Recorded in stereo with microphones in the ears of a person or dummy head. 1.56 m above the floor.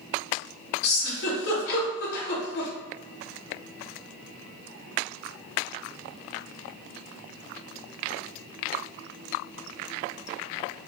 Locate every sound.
0.8 s a giggle: 60° left (ahead or behind), 1.0 m